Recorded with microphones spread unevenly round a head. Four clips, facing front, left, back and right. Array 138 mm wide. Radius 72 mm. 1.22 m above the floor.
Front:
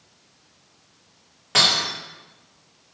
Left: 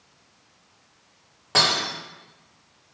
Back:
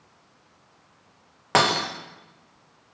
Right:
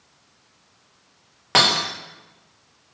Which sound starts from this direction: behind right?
Breaking glass, at 1.5 s.